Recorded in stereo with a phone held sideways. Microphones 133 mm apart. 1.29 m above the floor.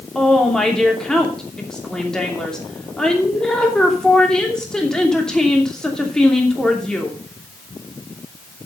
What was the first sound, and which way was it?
A woman speaking, 5° left (ahead or behind).